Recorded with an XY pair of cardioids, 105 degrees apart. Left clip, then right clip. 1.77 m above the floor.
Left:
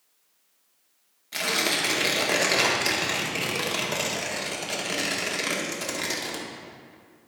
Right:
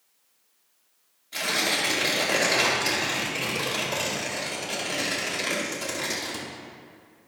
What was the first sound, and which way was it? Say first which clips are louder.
Tearing paper: even; 40° left.